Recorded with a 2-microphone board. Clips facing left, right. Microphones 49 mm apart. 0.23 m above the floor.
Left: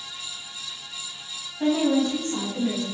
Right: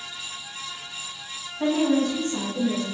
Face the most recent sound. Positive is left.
turn(degrees=45)  # may be behind; listen again after turning